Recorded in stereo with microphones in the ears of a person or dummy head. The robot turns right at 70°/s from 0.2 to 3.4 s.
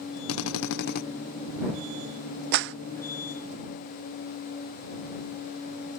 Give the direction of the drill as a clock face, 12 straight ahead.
9 o'clock.